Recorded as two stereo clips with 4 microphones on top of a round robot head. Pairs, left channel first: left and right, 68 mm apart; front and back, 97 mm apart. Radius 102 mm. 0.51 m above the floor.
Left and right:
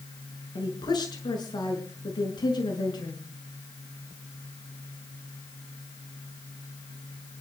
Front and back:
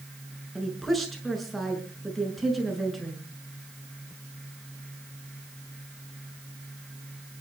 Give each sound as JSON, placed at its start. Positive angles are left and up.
{"t": 0.6, "sound": "a woman speaking", "azimuth_deg": 90, "distance_m": 6.5}